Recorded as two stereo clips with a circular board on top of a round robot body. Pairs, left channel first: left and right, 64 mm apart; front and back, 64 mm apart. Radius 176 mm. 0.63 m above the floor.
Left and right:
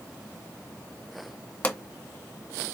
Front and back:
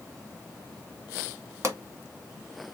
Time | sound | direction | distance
1.6 | a pop | 155° left | 1.8 m